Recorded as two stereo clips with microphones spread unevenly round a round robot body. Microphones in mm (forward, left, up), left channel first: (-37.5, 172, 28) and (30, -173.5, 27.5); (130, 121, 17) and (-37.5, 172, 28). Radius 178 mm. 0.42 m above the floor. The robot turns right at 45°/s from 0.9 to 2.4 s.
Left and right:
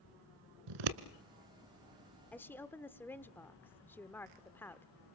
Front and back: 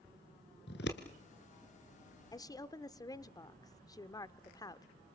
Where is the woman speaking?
20° left, 0.9 m.